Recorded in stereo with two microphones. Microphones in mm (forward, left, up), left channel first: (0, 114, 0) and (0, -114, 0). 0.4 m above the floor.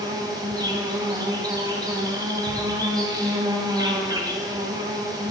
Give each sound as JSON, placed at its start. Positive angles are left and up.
{"t": 0.0, "sound": "an insect", "side_deg": -15, "distance_m": 2.5}